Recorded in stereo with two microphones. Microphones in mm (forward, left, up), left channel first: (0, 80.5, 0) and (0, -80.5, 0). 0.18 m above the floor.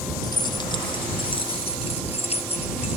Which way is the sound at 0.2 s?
25° left (ahead or behind).